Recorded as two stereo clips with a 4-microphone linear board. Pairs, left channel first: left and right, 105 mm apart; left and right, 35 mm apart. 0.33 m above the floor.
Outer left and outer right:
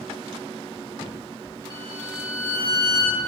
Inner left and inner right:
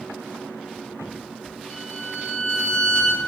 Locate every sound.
1.7 s a violin: 30° left (ahead or behind), 1.2 m